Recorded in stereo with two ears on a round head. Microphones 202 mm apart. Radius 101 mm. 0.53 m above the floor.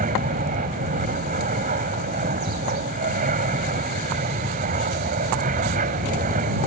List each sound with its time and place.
0.0 s an aircraft: 35° right (ahead or behind)